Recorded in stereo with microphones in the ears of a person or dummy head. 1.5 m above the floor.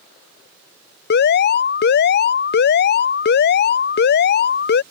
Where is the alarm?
45° left (ahead or behind).